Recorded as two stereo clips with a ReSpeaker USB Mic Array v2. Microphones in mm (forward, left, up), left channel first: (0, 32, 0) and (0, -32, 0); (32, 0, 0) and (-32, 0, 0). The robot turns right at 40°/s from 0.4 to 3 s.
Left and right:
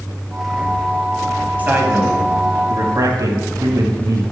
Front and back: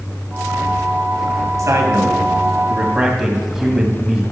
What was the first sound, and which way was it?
A man speaking, 155° right.